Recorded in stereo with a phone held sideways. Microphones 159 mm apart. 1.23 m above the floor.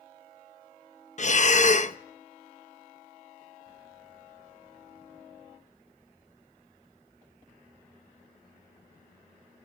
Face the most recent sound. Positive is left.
turn(degrees=50)  # may be behind; listen again after turning